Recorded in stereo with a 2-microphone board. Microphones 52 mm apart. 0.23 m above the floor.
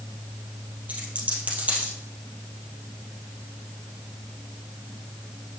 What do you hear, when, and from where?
0.9 s a dropped coin: 30° right (ahead or behind), 2.5 m